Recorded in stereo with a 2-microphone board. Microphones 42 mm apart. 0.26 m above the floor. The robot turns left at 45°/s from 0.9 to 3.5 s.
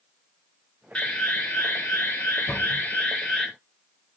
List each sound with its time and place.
0.9 s an alarm: 140° left, 1.8 m; by 3.5 s 30° left, 1.8 m
2.5 s a cupboard door: 70° left (ahead or behind), 6.5 m; by 2.8 s 55° left (ahead or behind), 6.5 m